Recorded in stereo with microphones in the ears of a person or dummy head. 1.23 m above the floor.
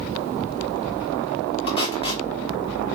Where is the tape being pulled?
30° left (ahead or behind), 1.6 m.